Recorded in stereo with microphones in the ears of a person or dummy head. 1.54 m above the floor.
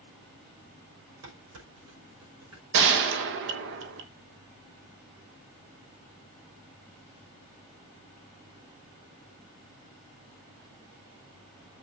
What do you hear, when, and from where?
1.2 s dishes clattering: 85° right, 5 m
2.7 s a gunshot: 65° right (ahead or behind), 1.3 m